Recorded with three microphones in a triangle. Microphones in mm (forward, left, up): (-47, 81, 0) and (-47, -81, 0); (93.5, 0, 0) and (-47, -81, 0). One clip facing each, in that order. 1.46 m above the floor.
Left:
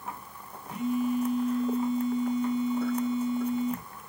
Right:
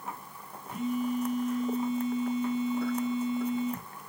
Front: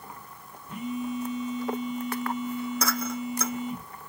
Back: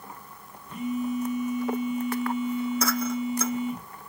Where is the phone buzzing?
15° left, 3 m.